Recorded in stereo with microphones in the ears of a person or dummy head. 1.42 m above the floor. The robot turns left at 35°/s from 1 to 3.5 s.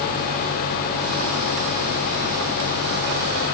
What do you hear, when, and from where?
Only background noise.